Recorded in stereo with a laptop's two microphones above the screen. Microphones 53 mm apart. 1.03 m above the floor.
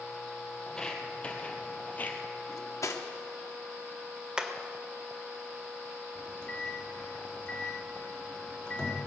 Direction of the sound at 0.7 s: 10° left (ahead or behind).